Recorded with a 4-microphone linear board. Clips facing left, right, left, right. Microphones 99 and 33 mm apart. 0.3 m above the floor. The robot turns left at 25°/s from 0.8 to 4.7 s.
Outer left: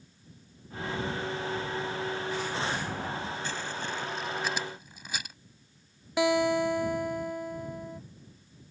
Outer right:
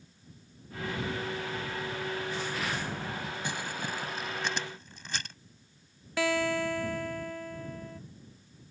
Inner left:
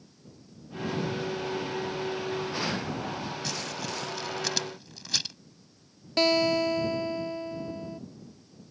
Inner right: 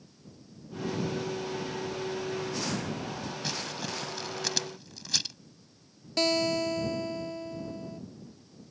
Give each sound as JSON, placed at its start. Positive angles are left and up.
{"t": 3.4, "sound": "crumpling", "side_deg": -15}
{"t": 6.2, "sound": "a guitar", "side_deg": 20}